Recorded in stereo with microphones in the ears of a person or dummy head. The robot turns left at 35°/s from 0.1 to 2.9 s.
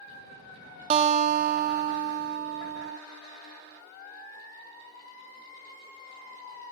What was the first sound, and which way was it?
A guitar, 35° right.